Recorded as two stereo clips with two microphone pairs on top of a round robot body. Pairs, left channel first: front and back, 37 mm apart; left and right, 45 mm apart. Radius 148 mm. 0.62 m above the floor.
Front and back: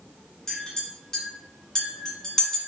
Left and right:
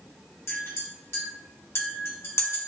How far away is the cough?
No cough in this recording.